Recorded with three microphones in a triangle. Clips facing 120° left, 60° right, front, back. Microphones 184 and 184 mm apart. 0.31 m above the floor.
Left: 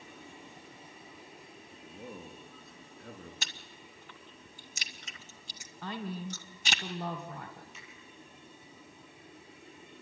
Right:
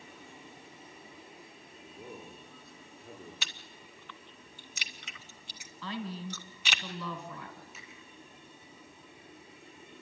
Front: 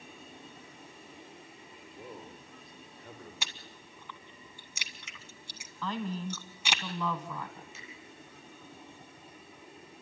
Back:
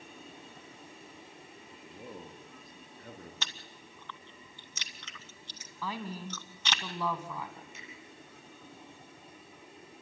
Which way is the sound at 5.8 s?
100° left.